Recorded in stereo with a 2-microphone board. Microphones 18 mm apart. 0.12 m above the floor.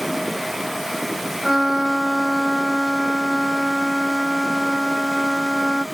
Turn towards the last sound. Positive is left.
turn(degrees=-25)  # may be behind; listen again after turning